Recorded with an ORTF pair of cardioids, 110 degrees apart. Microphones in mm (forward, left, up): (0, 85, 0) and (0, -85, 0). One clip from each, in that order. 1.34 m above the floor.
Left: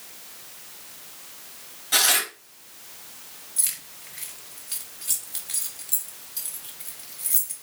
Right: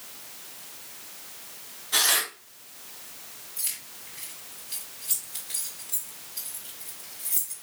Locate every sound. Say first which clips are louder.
1.9 s tearing paper: left 2 dB; 65° left, 3.5 m
3.6 s keys jangling: left 5 dB; 60° left, 3.5 m